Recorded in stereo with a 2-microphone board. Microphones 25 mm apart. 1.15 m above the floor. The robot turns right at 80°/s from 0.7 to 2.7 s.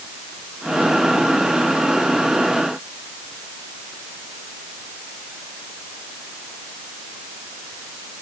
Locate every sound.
Only background noise.